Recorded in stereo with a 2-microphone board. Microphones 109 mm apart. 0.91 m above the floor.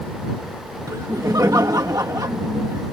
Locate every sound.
0.9 s laughter: 35° right (ahead or behind)